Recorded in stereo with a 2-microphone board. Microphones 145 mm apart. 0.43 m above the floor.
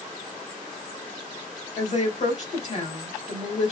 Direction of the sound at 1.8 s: 55° left (ahead or behind).